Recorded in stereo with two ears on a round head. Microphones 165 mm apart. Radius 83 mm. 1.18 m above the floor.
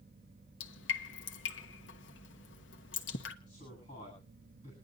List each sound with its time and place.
0.6 s dripping: 75° left (ahead or behind), 1.2 m
3.5 s a man speaking: 35° left (ahead or behind), 8.5 m